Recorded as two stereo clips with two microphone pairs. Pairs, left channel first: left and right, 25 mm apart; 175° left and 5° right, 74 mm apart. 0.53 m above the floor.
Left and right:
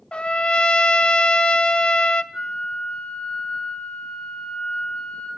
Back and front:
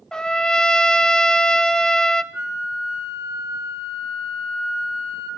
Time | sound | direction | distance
0.1 | a trumpet | 100° left | 0.8 m
2.3 | a flute | 75° left | 3.5 m